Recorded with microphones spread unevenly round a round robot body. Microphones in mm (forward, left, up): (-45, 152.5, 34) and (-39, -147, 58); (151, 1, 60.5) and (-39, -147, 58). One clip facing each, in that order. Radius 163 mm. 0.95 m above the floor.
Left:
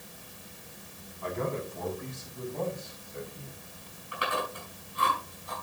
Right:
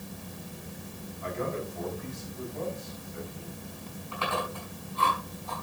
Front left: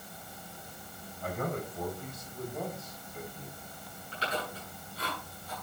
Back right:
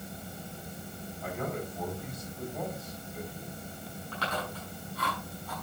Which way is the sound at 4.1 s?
165° left.